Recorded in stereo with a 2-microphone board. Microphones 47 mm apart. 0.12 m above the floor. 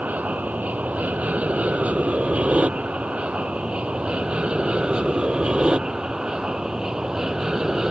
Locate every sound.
0.0 s an aircraft: 35° right (ahead or behind); by 7.9 s 15° right (ahead or behind)